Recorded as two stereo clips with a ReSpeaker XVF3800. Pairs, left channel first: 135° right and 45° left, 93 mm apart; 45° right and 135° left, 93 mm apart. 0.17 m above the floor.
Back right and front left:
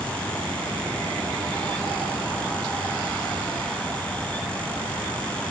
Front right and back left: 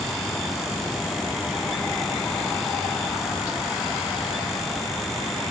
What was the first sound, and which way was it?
Only background noise.